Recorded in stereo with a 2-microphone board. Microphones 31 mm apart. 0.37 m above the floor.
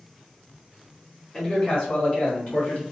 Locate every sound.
1.3 s a man speaking: 25° left (ahead or behind), 1.4 m; by 2.8 s 35° left (ahead or behind), 2.5 m